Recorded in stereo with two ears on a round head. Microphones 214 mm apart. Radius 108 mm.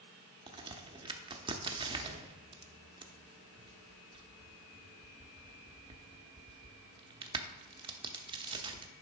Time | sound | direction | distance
0.5 | a crack | 20° right (ahead or behind) | 0.7 m